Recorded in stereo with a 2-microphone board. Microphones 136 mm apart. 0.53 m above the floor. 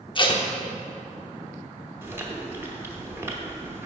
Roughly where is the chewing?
Centre.